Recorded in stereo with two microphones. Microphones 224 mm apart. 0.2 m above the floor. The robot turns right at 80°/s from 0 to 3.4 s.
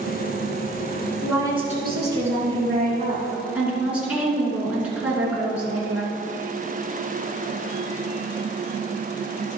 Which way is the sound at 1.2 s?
Straight behind.